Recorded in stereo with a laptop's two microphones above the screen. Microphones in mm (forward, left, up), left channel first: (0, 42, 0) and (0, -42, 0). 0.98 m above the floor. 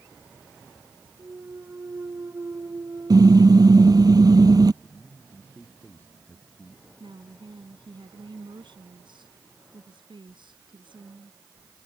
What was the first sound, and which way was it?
A clunk, 35° right (ahead or behind).